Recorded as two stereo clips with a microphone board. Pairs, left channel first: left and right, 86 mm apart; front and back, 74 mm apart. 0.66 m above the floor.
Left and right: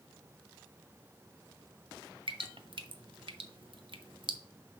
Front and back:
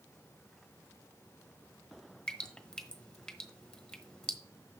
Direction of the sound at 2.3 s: 80° right.